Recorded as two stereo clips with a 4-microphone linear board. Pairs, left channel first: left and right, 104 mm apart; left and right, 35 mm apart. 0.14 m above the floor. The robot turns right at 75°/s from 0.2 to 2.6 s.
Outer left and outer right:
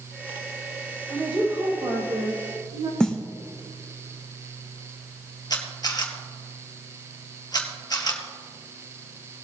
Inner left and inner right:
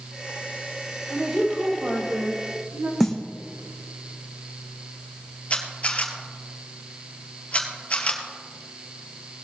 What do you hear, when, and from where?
1.1 s a woman speaking: 170° left, 5.5 m; by 2.9 s 80° right, 5.5 m
3.0 s a snare drum: 10° left (ahead or behind), 1.9 m
5.5 s a camera shutter: 40° left (ahead or behind), 1.7 m